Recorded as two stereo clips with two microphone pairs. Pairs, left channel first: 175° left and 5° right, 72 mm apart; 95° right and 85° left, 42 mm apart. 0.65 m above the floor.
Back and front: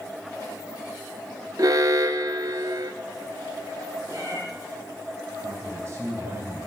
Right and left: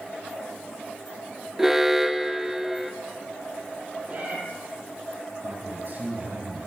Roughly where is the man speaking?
Ahead left.